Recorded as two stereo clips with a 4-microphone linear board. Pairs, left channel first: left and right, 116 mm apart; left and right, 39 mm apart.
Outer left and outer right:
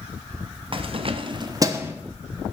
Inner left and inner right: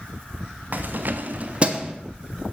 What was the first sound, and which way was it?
Keys jangling, 50° right (ahead or behind).